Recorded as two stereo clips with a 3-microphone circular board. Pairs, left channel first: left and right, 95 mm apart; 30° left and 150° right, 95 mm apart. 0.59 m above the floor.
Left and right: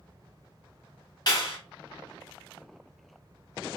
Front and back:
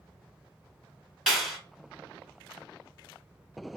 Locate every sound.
1.3 s a clap: 125° left, 1.4 m